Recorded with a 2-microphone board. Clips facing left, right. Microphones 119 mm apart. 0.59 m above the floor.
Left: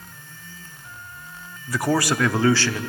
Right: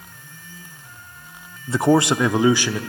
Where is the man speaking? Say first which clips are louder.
Right 5 dB; 25° right (ahead or behind), 0.6 m; by 2.8 s 15° right (ahead or behind), 0.9 m.